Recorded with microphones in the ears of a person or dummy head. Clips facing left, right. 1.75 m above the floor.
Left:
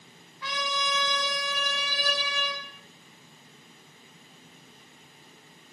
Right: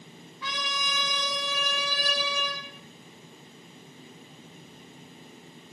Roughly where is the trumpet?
Right.